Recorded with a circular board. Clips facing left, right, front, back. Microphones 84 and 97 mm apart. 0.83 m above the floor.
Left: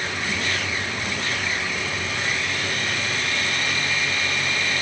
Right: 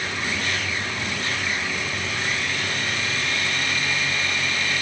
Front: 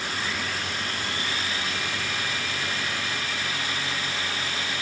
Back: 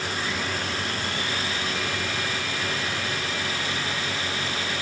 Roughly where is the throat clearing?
I don't hear throat clearing.